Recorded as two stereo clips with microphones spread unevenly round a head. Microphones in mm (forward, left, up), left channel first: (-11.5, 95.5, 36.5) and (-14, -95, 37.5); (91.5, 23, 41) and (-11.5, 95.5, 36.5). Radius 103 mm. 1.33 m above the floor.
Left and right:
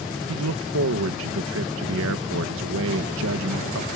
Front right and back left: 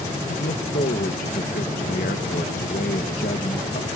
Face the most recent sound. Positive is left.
turn(degrees=-70)